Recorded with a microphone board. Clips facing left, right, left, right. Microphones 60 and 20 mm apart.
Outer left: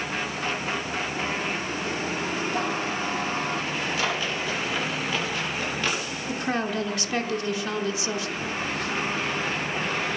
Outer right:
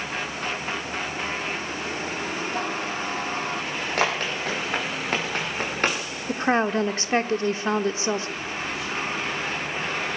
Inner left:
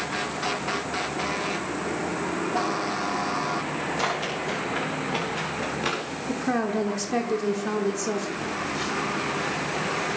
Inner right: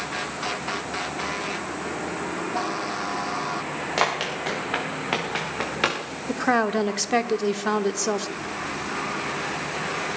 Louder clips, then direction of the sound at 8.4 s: Outer left 1 dB, inner left 1 dB; 55° left (ahead or behind).